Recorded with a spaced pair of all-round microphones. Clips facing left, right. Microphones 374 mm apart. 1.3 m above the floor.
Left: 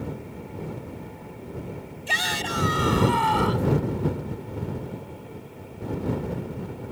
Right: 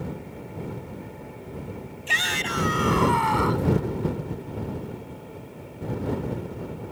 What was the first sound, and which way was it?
A shout, 55° left (ahead or behind).